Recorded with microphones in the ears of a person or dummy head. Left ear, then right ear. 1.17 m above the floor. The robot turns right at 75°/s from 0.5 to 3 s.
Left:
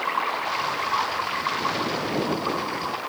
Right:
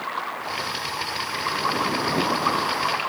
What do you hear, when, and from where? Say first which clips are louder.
0.0 s running water: left 4 dB; 95° left; by 3.1 s 80° right